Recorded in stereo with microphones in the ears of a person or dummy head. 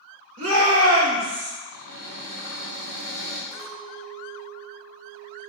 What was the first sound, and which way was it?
A shout, 75° right (ahead or behind).